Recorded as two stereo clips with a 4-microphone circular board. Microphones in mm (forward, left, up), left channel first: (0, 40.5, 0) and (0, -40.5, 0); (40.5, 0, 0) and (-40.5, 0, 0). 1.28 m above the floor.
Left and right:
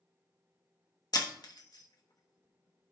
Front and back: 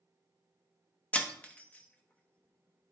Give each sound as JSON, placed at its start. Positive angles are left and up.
{"t": 1.1, "sound": "breaking glass", "azimuth_deg": 70, "distance_m": 1.0}